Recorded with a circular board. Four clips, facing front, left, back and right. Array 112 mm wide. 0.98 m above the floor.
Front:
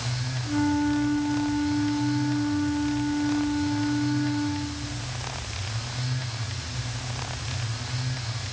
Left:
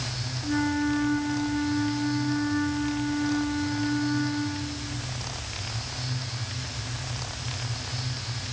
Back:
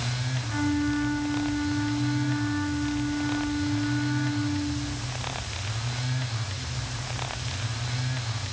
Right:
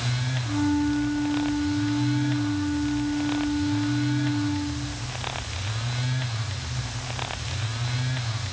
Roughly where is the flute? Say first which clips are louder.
Right 2 dB, front 3 dB; behind left.